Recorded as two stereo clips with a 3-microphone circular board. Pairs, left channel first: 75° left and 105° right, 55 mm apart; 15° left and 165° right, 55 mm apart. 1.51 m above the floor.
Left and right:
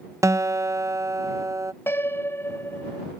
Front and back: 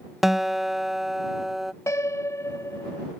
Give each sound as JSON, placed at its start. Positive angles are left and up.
{"t": 0.2, "sound": "a guitar", "azimuth_deg": -80}
{"t": 1.9, "sound": "a piano", "azimuth_deg": 35}